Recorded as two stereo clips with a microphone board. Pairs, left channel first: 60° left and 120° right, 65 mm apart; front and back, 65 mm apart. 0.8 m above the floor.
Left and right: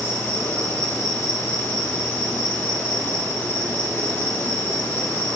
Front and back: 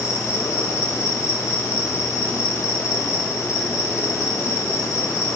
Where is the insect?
20° left, 3 m.